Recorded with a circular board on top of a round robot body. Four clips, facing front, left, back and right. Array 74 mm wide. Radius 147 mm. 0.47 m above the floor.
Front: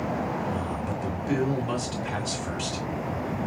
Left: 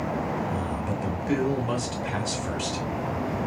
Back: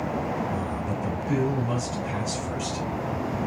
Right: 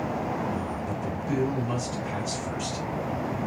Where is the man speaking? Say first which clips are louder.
Left 2 dB, back 1 dB; 50° left, 2.5 m.